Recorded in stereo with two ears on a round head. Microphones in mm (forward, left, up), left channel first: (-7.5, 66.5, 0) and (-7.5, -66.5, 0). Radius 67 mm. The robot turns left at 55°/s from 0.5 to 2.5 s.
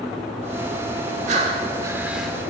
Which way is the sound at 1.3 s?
125° right.